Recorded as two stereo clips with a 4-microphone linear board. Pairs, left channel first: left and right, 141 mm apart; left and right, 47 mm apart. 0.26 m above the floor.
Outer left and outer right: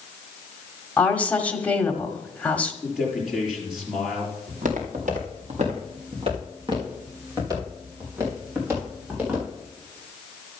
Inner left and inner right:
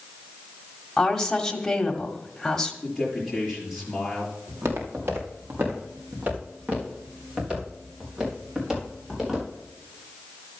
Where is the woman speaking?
10° left (ahead or behind), 1.3 m.